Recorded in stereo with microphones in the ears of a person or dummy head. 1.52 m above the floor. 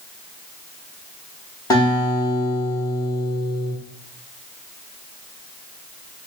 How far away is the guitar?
About 1.3 m.